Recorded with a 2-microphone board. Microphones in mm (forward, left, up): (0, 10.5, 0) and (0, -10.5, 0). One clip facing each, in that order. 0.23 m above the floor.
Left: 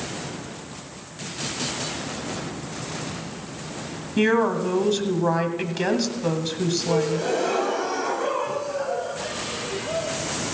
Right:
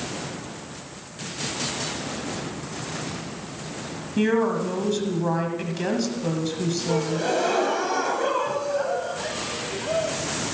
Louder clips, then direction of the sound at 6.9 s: Even; 15° right (ahead or behind).